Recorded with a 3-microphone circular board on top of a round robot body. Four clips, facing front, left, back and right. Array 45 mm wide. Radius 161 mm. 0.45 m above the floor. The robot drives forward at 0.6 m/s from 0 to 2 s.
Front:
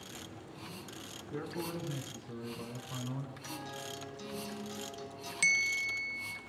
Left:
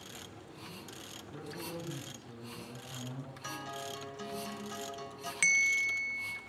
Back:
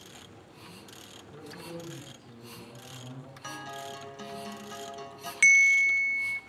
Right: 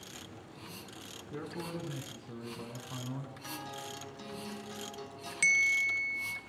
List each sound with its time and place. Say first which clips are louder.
1.3 s a man speaking: right 3 dB, front 4 dB; 60° right, 6.5 m
3.4 s a guitar: left 4 dB, back 3 dB; 170° left, 5.5 m
5.4 s a bell: right 1 dB, back 10 dB; 165° left, 0.6 m